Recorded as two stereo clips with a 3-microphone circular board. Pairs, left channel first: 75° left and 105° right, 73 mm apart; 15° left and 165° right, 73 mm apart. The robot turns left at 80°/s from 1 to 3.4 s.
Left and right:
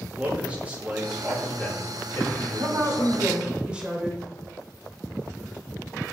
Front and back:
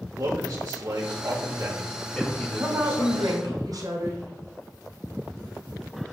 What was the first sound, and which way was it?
A man speaking, 165° right.